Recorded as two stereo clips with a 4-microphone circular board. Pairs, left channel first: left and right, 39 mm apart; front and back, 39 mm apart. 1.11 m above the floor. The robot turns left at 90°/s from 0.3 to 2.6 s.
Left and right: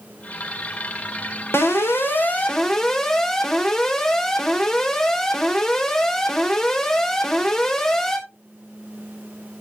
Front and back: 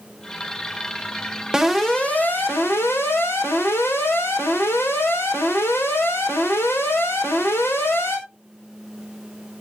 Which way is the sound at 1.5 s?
110° left.